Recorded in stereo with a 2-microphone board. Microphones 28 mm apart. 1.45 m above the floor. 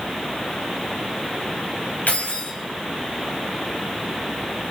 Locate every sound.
2.1 s keys jangling: 80° left, 6.5 m